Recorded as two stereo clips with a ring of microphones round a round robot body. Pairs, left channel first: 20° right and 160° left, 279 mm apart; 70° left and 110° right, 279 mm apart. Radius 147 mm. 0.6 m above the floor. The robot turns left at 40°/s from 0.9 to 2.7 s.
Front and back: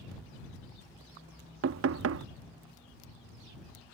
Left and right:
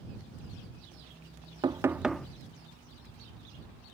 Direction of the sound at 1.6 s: 175° left.